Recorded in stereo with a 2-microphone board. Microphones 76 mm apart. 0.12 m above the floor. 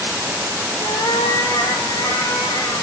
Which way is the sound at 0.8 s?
65° left (ahead or behind).